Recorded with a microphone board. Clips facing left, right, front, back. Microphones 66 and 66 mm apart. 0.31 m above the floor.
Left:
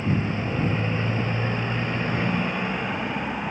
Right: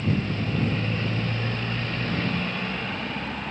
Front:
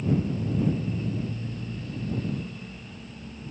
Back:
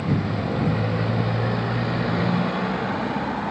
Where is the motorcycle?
160° left; by 3.5 s 165° left.